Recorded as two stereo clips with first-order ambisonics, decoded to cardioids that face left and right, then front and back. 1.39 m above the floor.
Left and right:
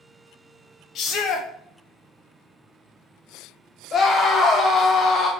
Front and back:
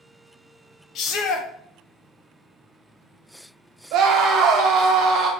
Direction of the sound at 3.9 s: 145° left.